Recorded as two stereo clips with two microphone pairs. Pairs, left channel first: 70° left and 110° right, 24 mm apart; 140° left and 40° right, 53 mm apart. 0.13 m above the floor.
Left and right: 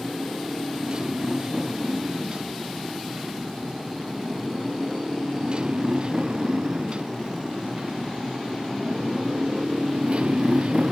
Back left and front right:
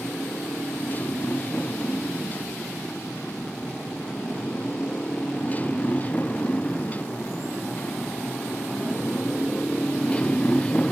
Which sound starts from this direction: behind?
A motorcycle, at 0.0 s.